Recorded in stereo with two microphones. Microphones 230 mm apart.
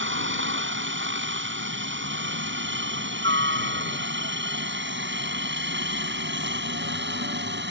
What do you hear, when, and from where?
0.0 s a helicopter: 60° right (ahead or behind); by 7.7 s 55° right (ahead or behind)